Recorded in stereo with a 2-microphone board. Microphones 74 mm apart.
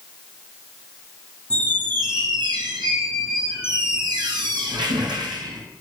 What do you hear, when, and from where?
1.5 s a squeak: 75° right (ahead or behind), 3 m